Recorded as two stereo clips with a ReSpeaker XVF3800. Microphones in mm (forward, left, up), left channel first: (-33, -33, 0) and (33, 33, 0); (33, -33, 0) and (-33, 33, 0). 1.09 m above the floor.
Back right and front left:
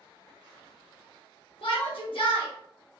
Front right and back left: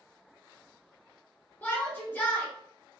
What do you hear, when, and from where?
1.6 s a shout: 115° right, 1.0 m